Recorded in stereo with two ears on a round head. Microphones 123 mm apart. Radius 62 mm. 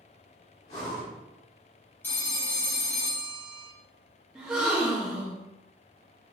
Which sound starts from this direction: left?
Breathing, at 0.7 s.